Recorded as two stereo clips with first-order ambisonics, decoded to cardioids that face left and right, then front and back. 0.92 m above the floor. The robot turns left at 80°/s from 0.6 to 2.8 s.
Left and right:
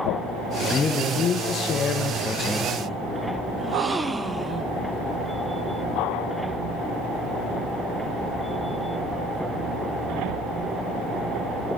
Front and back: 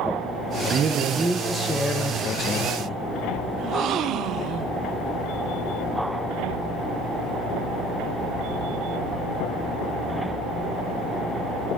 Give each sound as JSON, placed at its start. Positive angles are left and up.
{"t": 0.7, "sound": "a man speaking", "azimuth_deg": 160, "distance_m": 0.8}
{"t": 3.6, "sound": "a gasp", "azimuth_deg": -170, "distance_m": 0.5}